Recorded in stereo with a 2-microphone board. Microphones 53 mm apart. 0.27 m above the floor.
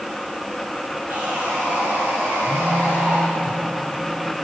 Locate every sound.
1.1 s sawing: 45° right (ahead or behind), 9.5 m
2.5 s a phone buzzing: 60° right (ahead or behind), 6.5 m